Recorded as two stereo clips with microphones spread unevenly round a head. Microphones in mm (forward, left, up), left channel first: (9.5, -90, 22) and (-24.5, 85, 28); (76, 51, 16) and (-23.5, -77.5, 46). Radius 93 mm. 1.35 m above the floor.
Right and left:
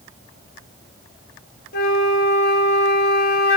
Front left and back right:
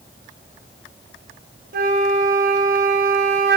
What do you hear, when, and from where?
1.7 s a flute: 110° right, 0.5 m